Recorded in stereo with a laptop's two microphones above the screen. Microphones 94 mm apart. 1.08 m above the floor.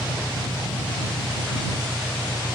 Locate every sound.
0.0 s an engine running: 50° left (ahead or behind)